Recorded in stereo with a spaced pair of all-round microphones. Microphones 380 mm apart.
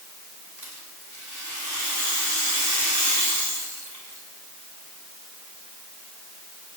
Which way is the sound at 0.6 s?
50° right (ahead or behind).